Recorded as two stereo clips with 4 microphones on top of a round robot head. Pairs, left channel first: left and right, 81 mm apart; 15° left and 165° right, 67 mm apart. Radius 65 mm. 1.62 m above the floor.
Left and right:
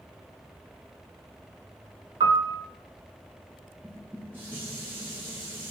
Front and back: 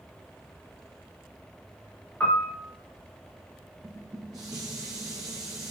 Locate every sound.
2.2 s a piano: 60° right, 0.7 m
3.8 s dishes clattering: 155° right, 0.8 m